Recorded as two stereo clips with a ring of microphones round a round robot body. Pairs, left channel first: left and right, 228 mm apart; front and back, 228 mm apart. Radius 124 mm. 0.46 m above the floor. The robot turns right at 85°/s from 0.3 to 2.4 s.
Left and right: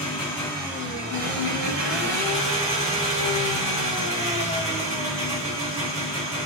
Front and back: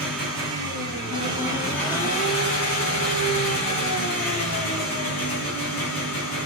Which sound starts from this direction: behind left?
An engine running, at 0.0 s.